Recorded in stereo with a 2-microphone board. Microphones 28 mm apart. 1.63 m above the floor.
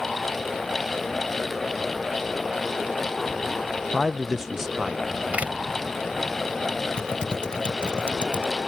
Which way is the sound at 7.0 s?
40° left (ahead or behind).